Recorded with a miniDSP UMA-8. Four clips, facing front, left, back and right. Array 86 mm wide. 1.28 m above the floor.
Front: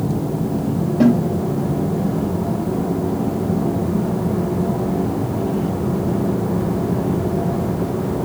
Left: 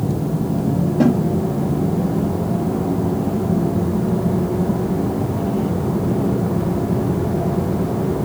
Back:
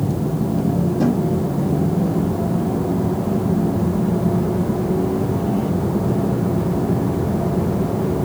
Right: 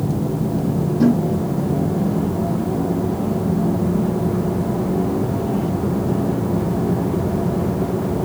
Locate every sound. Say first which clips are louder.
1.0 s a snare drum: even, front 6 dB; 45° left, 4 m